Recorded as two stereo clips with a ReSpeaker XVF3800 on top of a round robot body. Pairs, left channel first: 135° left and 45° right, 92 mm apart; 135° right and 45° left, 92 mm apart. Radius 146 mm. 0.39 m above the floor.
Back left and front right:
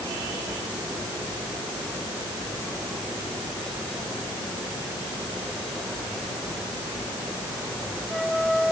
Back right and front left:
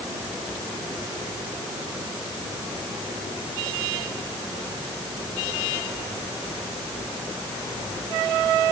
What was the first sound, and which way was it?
Only background noise.